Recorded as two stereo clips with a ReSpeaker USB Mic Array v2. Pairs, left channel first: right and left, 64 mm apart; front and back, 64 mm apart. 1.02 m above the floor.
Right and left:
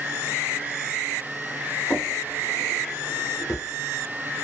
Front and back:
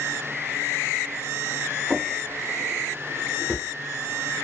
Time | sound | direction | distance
1.9 | a drawer | 105° right | 0.9 m